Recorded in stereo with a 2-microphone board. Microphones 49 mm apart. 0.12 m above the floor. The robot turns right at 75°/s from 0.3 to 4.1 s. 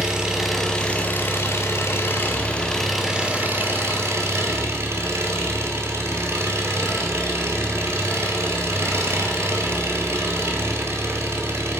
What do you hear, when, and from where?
0.0 s an engine running: 15° right, 1.4 m; by 11.8 s 90° right, 1.4 m